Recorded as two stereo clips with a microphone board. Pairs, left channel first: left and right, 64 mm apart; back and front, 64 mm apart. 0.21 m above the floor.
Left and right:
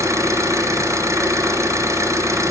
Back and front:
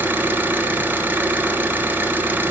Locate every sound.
0.0 s an engine running: 55° right, 2.5 m